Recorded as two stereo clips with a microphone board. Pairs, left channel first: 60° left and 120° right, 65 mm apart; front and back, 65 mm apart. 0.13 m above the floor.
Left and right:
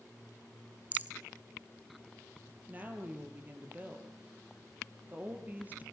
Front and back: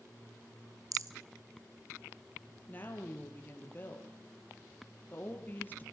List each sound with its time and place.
0.9 s a rattle: straight behind, 1.3 m
2.7 s a woman speaking: 60° right, 3.5 m